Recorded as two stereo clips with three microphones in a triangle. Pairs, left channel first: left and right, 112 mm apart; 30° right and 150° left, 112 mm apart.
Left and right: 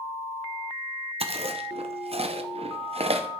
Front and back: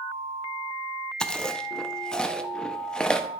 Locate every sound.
1.2 s chewing: 115° right, 0.5 m